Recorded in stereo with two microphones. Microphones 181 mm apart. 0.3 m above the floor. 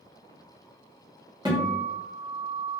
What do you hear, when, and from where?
1.4 s a guitar: 25° right (ahead or behind), 2.0 m